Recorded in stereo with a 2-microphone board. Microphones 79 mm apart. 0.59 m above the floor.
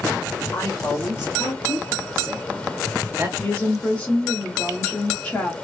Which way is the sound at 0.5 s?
45° left (ahead or behind).